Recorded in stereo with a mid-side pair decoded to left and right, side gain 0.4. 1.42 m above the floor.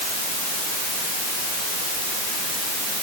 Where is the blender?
No blender in this recording.